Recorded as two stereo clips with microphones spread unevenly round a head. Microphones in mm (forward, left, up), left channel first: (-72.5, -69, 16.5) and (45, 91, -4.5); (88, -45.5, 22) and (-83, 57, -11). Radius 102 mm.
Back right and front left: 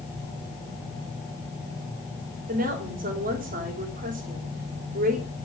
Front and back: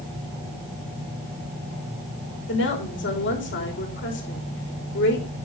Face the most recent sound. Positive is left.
turn(degrees=0)